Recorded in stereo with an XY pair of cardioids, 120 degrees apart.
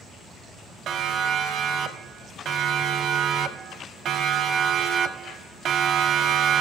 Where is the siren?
55° right, 4.5 m.